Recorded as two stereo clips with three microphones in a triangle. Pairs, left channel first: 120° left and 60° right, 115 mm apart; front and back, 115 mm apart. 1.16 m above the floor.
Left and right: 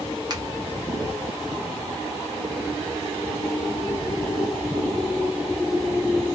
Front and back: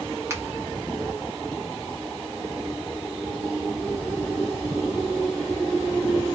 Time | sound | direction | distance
0.3 | a finger snap | 115° right | 1.0 m